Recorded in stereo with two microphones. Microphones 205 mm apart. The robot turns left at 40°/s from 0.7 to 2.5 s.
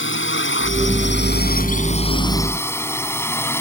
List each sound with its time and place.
0.0 s a drone: 70° left (ahead or behind); by 3.6 s 10° left (ahead or behind)